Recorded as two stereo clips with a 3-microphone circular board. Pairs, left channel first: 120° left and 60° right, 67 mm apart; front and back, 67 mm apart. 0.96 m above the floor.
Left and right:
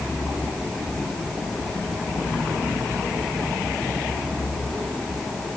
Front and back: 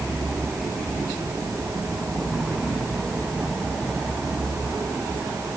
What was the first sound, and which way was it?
Only background noise.